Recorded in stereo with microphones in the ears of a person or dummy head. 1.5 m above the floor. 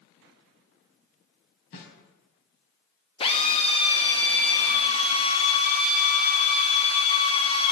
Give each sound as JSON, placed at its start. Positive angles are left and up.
{"t": 1.7, "sound": "a snare drum", "side_deg": 60, "distance_m": 4.0}
{"t": 3.2, "sound": "a drill", "side_deg": 35, "distance_m": 1.8}